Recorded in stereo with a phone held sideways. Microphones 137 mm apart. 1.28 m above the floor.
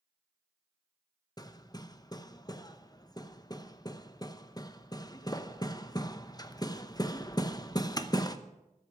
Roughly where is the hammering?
Left.